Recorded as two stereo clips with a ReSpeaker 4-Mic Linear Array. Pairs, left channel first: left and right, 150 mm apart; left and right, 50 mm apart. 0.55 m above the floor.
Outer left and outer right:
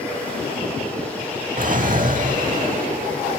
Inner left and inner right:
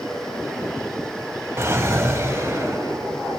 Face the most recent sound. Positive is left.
turn(degrees=-65)  # may be behind; listen again after turning